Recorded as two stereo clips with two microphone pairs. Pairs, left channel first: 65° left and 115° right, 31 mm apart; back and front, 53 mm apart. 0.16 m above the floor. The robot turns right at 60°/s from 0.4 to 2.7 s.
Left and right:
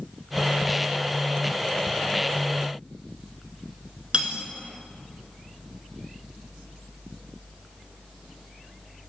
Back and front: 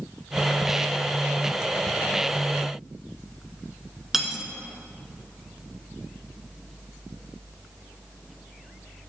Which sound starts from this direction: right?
Cutlery clinking, at 4.1 s.